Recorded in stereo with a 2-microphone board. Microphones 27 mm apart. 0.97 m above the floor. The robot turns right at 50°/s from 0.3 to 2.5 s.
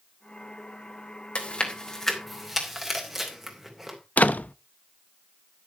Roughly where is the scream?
No scream in this recording.